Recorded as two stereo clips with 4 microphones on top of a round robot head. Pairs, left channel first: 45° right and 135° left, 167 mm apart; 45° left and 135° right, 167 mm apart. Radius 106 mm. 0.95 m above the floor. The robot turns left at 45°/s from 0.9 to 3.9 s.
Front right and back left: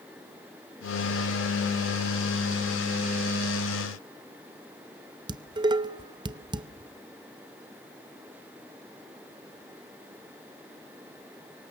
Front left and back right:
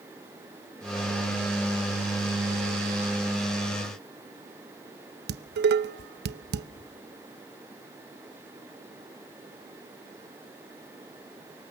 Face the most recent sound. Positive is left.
turn(degrees=-160)